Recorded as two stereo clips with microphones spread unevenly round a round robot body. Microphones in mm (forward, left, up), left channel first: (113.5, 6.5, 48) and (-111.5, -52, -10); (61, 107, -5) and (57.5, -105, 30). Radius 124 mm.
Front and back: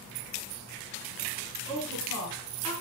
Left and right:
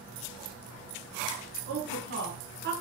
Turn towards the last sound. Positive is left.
turn(degrees=-55)